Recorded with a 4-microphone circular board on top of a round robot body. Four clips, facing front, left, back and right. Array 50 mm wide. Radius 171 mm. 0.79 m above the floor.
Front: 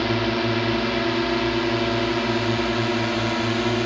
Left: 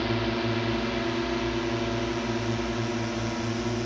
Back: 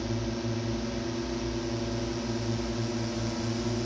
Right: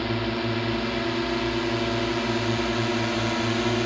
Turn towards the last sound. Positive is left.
turn(degrees=-30)